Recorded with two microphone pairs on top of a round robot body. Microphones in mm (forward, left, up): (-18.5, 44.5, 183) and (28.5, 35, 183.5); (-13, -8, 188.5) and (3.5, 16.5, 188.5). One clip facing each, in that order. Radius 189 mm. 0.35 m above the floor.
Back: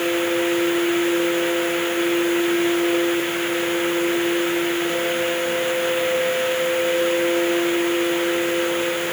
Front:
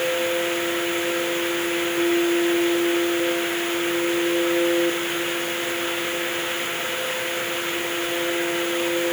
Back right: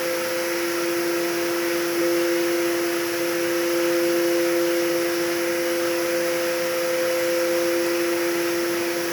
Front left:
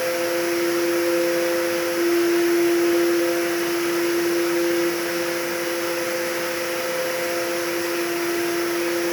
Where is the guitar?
No guitar in this recording.